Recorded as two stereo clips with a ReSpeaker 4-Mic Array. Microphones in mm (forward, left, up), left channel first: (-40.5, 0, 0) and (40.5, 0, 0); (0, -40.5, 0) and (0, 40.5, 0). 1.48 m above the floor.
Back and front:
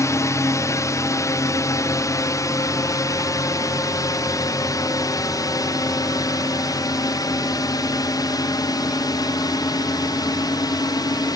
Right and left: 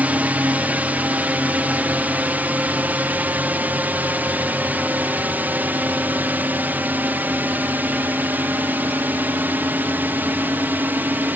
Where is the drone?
150° left; by 11.4 s 155° left.